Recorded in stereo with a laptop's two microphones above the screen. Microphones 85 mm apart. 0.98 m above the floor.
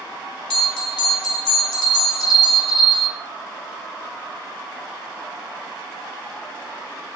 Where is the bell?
10° left (ahead or behind), 1.2 m.